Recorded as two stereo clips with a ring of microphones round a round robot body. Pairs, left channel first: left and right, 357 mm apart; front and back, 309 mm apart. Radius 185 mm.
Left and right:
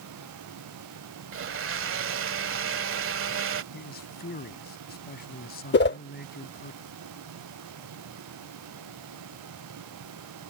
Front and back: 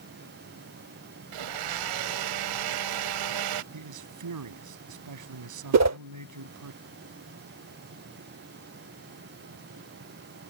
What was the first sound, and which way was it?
A blender, 145° right.